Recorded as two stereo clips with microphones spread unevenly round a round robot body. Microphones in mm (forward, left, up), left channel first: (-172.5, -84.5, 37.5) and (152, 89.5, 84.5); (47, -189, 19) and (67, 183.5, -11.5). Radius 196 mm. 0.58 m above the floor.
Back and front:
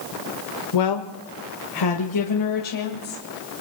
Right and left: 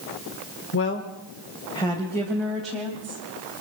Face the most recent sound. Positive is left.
turn(degrees=170)